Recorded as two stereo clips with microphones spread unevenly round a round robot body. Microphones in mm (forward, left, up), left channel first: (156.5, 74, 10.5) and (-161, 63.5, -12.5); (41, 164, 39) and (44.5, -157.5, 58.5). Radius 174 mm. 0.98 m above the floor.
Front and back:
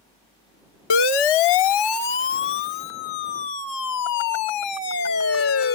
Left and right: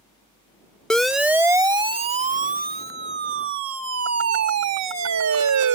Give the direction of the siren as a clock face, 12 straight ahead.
12 o'clock.